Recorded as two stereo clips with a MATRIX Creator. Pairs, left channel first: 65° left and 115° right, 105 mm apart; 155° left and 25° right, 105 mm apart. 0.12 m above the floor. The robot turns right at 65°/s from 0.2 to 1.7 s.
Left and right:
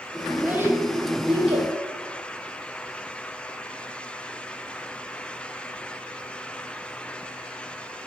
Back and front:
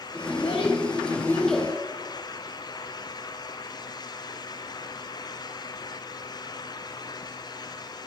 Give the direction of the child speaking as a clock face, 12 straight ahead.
7 o'clock.